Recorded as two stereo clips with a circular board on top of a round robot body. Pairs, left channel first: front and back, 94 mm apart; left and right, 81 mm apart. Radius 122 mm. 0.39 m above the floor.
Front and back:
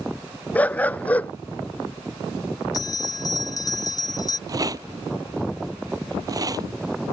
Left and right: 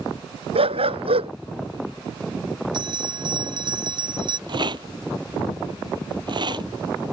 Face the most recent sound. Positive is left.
turn(degrees=-125)